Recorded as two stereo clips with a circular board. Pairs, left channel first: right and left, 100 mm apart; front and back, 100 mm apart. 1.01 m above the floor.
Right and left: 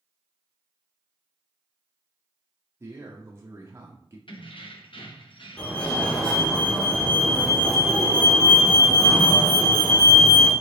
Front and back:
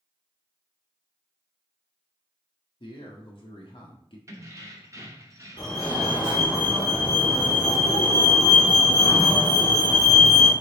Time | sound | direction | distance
2.8 | a man speaking | 25° left | 0.8 m
4.3 | keys jangling | 120° right | 0.8 m
5.6 | a fire alarm | 10° right | 1.8 m